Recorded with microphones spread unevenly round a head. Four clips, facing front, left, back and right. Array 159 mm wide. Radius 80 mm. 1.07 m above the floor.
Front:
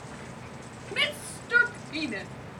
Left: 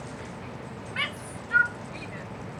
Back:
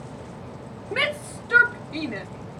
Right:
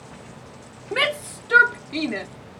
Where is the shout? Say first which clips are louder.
Right 12 dB, back 6 dB; 115° right; by 2.3 s 90° right.